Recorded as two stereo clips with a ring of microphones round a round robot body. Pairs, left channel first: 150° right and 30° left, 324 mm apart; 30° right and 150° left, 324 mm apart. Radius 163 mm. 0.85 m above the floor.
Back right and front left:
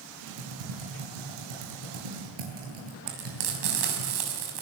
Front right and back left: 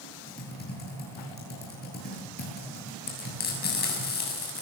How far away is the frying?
About 6.5 m.